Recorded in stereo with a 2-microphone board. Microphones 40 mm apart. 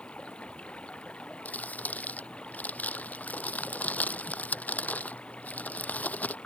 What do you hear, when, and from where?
0.0 s running water: 30° left (ahead or behind)
1.4 s crumpling: 45° left (ahead or behind)